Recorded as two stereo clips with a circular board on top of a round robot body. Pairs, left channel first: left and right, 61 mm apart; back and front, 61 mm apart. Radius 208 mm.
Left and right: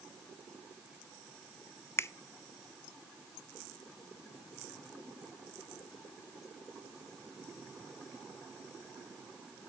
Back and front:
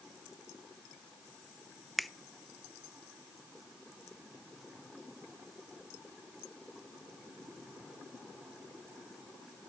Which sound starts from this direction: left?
A finger snap, at 2.0 s.